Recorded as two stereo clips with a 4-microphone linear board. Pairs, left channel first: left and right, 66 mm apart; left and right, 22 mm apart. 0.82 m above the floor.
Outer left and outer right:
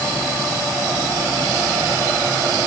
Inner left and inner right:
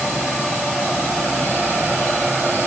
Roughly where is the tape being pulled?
I don't hear tape being pulled.